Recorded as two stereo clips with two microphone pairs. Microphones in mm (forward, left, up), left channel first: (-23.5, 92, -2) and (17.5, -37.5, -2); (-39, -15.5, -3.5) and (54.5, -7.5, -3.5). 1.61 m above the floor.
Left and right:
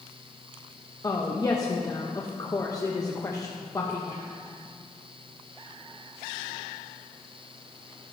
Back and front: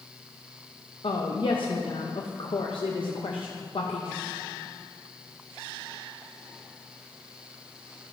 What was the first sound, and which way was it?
A woman speaking, 170° left.